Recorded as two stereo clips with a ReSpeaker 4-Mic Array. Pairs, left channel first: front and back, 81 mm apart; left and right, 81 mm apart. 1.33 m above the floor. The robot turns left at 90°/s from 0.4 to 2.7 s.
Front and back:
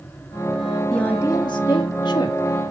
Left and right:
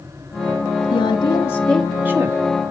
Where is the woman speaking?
85° left, 1.9 m; by 2.4 s 55° right, 1.9 m.